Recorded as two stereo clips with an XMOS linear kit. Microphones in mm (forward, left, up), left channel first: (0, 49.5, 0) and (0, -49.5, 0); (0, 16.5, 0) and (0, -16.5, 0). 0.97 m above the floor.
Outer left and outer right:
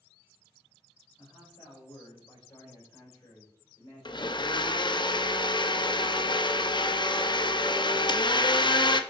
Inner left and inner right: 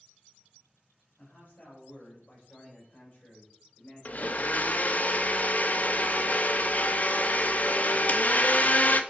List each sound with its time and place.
1.2 s a man speaking: 45° left (ahead or behind), 4.5 m; by 4.8 s 30° left (ahead or behind), 5.5 m
4.0 s a blender: 50° left (ahead or behind), 0.6 m